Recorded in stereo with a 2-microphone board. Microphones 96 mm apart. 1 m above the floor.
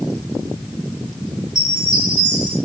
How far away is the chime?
About 4.5 m.